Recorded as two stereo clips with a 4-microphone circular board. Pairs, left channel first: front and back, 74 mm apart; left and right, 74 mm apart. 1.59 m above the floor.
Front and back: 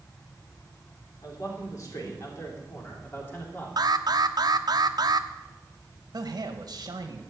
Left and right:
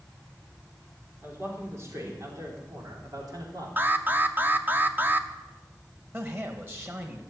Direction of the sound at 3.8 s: 155° right.